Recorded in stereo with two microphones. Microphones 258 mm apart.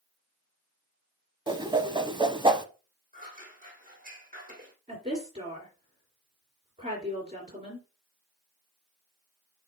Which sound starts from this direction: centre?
A whoosh, at 1.5 s.